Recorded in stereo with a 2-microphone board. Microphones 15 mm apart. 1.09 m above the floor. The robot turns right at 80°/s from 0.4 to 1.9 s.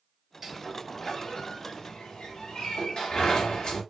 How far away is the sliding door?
About 4 m.